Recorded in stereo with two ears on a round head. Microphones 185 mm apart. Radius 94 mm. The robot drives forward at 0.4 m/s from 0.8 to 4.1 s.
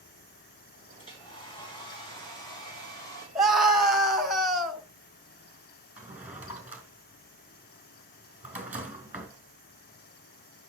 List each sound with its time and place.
1.0 s a hair dryer: 25° left (ahead or behind), 3.5 m; by 3.2 s 20° left (ahead or behind), 4.5 m
3.4 s a scream: centre (ahead or behind), 2 m
6.0 s a drawer: 5° right (ahead or behind), 2.5 m